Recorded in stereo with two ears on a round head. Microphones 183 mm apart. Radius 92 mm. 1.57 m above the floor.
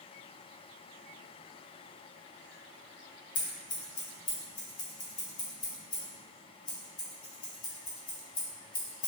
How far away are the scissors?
About 0.8 m.